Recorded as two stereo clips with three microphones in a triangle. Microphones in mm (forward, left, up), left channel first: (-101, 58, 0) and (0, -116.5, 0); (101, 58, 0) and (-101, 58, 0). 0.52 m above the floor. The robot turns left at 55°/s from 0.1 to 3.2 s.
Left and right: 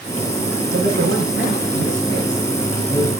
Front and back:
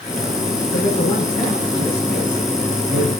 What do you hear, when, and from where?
0.7 s a man speaking: 45° right, 5 m; by 3.1 s 175° right, 5 m